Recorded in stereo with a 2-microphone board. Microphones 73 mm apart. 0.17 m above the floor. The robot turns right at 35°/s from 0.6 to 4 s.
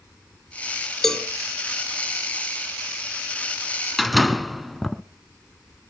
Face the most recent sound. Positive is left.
turn(degrees=0)  # may be behind; listen again after turning